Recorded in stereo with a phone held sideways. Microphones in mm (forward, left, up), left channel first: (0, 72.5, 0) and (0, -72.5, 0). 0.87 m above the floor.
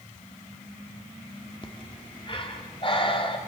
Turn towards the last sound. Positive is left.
turn(degrees=35)  # may be behind; listen again after turning